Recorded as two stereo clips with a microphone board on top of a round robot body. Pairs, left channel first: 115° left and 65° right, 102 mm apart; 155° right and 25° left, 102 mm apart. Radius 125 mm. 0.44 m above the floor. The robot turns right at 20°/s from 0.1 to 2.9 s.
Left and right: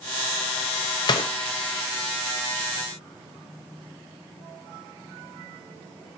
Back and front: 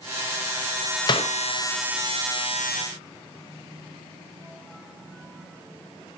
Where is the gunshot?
155° left, 0.9 m; by 1.3 s 160° left, 0.9 m.